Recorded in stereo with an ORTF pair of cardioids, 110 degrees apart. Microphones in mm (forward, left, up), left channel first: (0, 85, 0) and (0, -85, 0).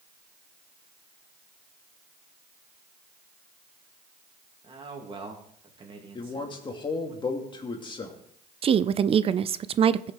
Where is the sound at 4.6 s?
30° right, 3.5 m.